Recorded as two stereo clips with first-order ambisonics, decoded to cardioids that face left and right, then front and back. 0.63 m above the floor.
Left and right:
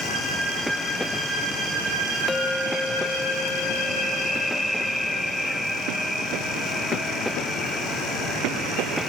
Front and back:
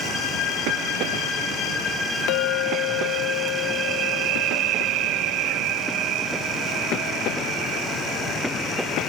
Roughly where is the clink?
Ahead.